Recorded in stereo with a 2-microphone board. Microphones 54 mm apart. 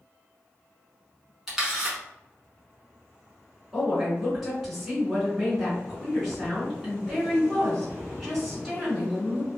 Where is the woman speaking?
5° right (ahead or behind), 1.9 m.